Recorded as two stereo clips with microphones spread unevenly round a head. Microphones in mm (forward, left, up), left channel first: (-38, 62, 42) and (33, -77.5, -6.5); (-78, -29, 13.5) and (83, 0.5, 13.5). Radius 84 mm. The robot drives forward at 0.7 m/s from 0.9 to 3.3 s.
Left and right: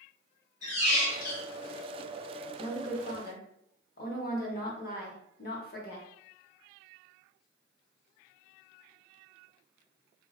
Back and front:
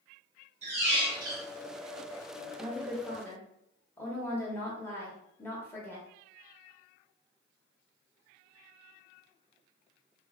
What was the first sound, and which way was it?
A squeak, 65° left.